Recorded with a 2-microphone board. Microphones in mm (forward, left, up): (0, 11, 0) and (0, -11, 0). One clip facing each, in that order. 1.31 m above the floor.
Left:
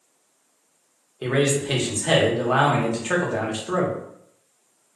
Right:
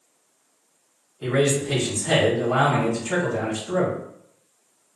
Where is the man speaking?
75° left (ahead or behind), 0.9 m.